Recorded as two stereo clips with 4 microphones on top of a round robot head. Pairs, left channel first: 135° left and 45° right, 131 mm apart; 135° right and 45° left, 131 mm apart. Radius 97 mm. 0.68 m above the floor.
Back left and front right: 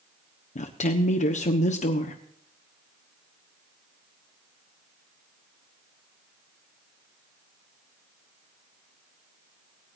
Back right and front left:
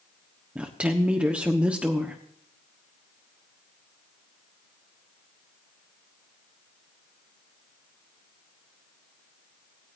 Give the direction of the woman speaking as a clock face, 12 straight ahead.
8 o'clock.